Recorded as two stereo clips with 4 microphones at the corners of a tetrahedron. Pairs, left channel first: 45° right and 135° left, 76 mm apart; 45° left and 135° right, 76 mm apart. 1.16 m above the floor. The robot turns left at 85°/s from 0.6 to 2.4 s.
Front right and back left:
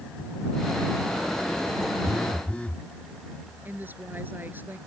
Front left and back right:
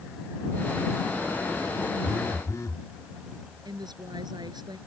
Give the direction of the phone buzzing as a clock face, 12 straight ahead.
10 o'clock.